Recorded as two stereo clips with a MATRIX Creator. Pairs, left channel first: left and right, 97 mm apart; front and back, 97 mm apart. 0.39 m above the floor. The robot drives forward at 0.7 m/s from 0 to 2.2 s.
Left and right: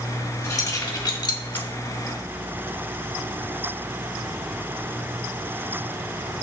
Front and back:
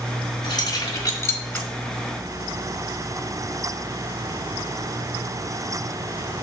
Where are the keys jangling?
40° left, 1.8 m; by 1.7 s 70° left, 1.3 m.